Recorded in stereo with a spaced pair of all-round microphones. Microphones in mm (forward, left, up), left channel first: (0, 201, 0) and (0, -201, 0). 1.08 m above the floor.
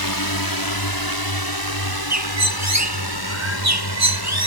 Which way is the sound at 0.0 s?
60° left (ahead or behind).